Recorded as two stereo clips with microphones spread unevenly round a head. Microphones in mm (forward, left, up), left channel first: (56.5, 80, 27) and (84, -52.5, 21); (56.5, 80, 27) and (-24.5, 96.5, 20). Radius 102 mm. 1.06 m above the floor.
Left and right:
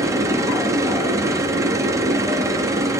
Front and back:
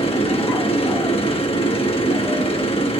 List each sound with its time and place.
0.0 s a machine running: 10° right, 1.2 m